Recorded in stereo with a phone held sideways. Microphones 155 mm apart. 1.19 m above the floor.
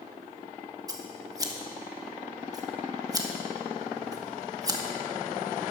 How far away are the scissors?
About 1.4 m.